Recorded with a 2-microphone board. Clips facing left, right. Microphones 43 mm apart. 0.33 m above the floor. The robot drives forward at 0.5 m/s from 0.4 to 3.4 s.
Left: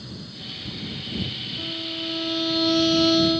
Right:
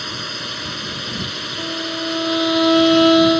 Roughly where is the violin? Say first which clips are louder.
Right 8 dB; right.